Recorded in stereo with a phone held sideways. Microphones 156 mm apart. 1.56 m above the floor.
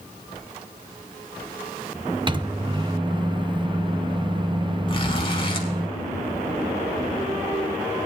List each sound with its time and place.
2.3 s a microwave: 30° right (ahead or behind), 0.5 m
4.9 s a zipper: 35° left (ahead or behind), 2 m